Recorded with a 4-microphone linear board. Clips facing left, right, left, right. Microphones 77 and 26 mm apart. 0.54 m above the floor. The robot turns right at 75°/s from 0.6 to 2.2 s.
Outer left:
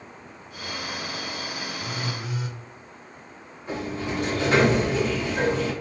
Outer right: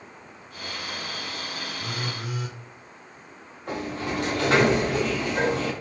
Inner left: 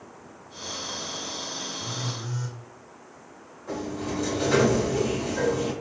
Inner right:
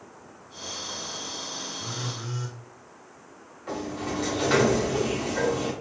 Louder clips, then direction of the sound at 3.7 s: Even, even; 85° right.